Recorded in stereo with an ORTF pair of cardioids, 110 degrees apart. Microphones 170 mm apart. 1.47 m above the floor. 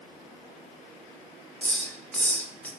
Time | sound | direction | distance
1.6 | a hiss | 10° left | 2.5 m